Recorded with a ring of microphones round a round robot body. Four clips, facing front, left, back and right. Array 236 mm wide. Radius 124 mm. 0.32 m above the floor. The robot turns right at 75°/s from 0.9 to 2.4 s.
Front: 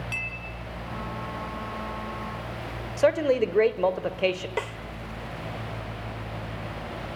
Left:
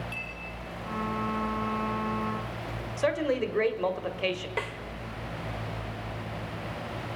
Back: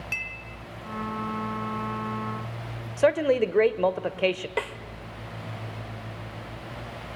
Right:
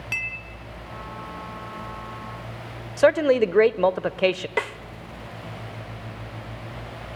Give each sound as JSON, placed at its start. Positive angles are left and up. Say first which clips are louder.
{"t": 0.1, "sound": "a clink", "louder": "right 5 dB, front 1 dB", "azimuth_deg": -95, "distance_m": 3.0}
{"t": 3.0, "sound": "a man speaking", "louder": "right 10 dB, even", "azimuth_deg": -95, "distance_m": 1.2}
{"t": 4.6, "sound": "a snare drum", "louder": "right 6 dB, back 1 dB", "azimuth_deg": -95, "distance_m": 1.2}